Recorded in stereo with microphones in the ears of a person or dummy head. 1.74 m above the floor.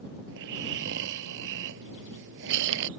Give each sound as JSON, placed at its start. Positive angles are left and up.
{"t": 0.3, "sound": "snoring", "side_deg": -65}